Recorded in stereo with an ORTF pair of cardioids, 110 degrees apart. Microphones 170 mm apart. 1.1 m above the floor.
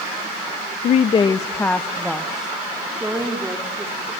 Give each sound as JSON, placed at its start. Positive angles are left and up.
{"t": 0.8, "sound": "a woman speaking", "azimuth_deg": 50, "distance_m": 0.6}